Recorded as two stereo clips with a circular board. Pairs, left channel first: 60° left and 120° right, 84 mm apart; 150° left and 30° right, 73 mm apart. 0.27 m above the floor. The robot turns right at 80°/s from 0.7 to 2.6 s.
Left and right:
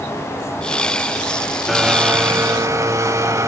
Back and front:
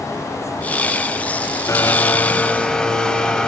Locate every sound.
1.7 s a blender: 150° left, 0.9 m; by 3.5 s 135° right, 0.9 m